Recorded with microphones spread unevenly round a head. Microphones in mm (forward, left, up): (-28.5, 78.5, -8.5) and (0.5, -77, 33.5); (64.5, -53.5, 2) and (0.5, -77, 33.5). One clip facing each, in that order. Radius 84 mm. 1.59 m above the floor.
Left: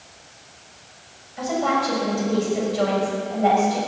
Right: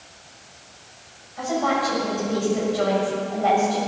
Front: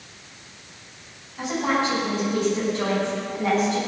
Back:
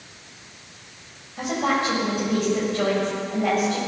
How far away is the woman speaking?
About 6.5 m.